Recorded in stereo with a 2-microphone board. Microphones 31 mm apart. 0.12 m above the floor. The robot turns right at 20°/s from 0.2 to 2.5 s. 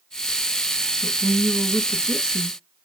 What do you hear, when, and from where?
1.0 s a woman speaking: 25° right (ahead or behind), 1.2 m